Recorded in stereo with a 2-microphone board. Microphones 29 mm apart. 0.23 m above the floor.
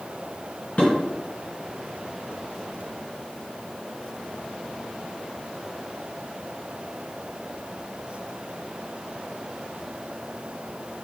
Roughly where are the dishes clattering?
Left.